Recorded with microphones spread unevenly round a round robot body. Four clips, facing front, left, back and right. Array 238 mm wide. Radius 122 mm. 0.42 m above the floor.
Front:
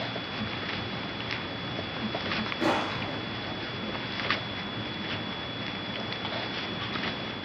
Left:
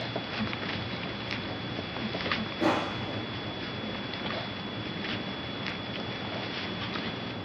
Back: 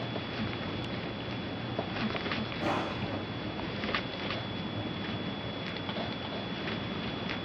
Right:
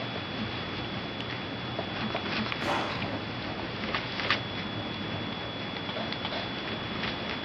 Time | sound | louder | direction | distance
2.6 | crushing | left 5 dB, front 5 dB | 50° left | 4 m